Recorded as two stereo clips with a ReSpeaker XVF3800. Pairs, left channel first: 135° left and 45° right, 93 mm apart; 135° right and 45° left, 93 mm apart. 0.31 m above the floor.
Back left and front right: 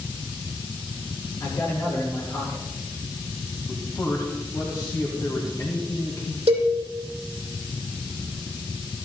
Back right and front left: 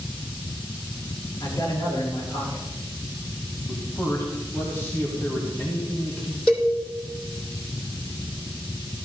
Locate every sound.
1.4 s a man speaking: 175° right, 4.5 m
3.7 s a man speaking: 170° left, 1.8 m
6.5 s a cowbell: 50° right, 3 m